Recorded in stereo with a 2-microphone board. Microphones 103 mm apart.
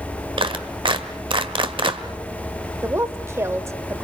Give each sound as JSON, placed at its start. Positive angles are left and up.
{"t": 0.4, "sound": "a clap", "side_deg": -50, "distance_m": 1.4}
{"t": 2.8, "sound": "a woman speaking", "side_deg": -25, "distance_m": 1.4}